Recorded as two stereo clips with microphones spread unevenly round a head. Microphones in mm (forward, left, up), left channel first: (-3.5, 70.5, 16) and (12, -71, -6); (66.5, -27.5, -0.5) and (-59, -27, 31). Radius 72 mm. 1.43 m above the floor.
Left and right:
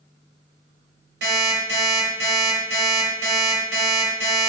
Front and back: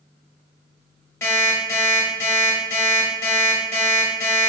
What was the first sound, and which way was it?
An alarm clock, 75° right.